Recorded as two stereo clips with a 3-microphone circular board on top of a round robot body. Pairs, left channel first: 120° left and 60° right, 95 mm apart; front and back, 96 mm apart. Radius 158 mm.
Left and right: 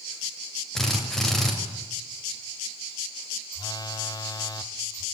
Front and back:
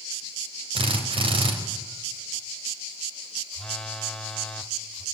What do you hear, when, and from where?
0.8 s a drill: 155° right, 4.5 m
3.5 s a phone buzzing: 85° left, 1.4 m